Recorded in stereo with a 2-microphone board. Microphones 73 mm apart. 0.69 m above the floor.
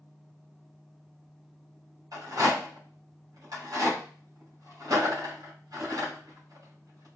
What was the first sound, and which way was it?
A rattle, 55° right (ahead or behind).